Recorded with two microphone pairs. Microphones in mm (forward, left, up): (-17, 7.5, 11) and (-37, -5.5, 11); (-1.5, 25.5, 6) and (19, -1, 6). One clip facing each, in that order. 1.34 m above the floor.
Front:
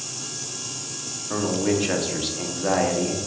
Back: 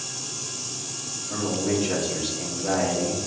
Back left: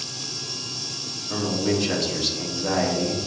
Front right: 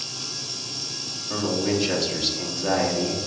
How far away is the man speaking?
About 0.7 m.